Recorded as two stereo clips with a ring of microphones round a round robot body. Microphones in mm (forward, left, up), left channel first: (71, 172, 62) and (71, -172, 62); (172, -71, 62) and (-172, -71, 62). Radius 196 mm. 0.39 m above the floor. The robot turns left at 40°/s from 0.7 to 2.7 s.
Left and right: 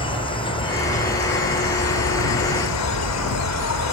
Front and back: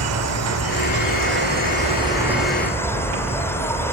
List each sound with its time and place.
0.0 s an insect: 160° left; by 3.9 s 80° left